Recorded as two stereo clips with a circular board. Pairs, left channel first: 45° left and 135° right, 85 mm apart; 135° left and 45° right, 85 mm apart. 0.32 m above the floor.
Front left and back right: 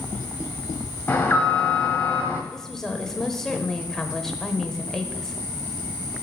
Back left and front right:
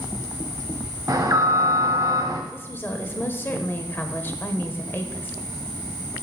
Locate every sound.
1.1 s an alarm: 20° right, 1.5 m
2.5 s a woman speaking: 120° left, 0.9 m